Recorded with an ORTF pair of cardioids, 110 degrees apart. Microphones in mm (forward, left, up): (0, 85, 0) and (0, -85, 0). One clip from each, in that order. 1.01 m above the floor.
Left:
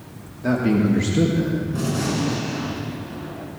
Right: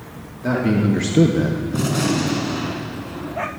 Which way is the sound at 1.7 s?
40° right.